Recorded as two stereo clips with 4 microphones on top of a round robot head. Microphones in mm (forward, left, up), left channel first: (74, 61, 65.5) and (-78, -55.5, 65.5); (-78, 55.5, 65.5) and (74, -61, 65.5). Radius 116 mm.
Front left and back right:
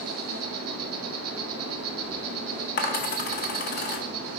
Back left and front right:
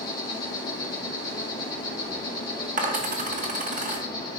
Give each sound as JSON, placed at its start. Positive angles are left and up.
{"t": 0.0, "sound": "an insect", "azimuth_deg": -150, "distance_m": 1.8}
{"t": 2.8, "sound": "a dropped coin", "azimuth_deg": 5, "distance_m": 1.2}